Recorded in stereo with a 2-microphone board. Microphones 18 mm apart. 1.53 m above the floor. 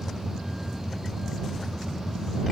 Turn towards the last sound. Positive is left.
turn(degrees=-10)  # may be behind; listen again after turning